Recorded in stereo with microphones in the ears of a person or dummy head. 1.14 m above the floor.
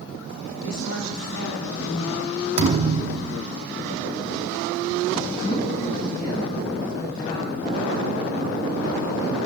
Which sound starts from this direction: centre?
A woman speaking, at 5.3 s.